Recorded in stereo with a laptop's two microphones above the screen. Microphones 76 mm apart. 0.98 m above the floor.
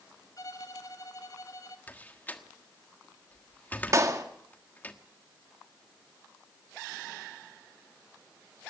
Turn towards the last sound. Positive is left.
turn(degrees=-40)  # may be behind; listen again after turning